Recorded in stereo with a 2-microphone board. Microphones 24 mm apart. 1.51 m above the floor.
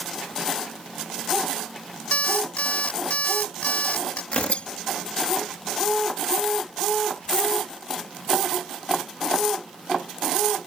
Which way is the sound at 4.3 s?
70° left (ahead or behind).